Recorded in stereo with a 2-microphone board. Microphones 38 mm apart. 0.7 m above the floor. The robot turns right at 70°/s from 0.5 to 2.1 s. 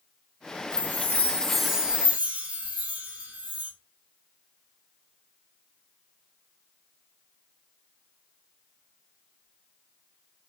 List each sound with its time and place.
0.7 s a chime: 115° left, 0.6 m; by 3.7 s 145° right, 0.6 m